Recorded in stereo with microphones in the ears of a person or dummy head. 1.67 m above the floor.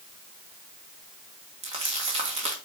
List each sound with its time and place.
1.6 s crumpling: 40° right (ahead or behind), 1.3 m